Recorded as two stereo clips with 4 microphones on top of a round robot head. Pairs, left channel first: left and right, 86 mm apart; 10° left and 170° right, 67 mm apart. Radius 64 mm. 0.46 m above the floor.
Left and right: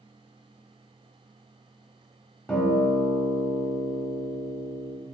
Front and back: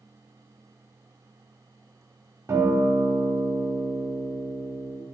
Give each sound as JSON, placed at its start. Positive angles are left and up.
{"t": 2.5, "sound": "a guitar", "azimuth_deg": 170, "distance_m": 0.8}